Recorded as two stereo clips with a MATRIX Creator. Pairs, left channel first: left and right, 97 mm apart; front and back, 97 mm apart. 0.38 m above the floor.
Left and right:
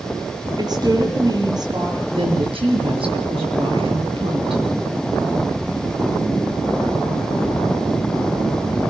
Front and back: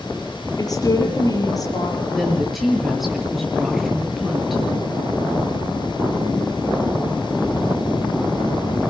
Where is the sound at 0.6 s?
50° right, 7.5 m.